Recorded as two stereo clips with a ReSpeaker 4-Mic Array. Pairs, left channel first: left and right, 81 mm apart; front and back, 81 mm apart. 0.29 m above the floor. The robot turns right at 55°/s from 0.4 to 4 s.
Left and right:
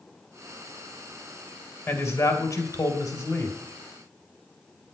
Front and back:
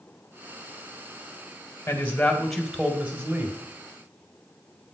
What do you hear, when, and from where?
1.9 s a man speaking: 50° left, 2 m; by 3.6 s 145° left, 2 m